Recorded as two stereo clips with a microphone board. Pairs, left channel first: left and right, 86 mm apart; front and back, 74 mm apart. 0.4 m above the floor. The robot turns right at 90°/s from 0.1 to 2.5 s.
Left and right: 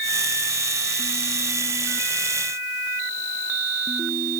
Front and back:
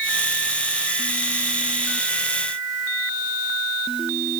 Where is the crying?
I don't hear crying.